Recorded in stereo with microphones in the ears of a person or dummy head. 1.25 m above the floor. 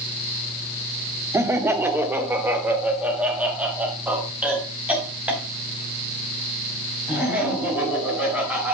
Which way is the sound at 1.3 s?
15° right (ahead or behind).